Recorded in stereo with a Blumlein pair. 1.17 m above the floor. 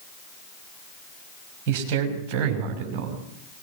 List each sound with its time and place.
1.7 s a man speaking: 40° right, 6 m; by 3.2 s 35° right, 8 m